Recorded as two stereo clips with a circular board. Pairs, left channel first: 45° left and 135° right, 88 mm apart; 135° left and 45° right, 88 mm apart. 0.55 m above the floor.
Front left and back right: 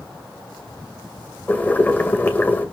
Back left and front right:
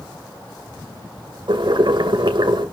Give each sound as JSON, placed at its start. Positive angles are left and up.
{"t": 1.5, "sound": "boiling", "azimuth_deg": -20, "distance_m": 1.9}